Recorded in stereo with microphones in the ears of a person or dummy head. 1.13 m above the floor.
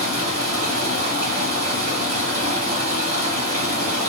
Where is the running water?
40° right (ahead or behind), 1.2 m.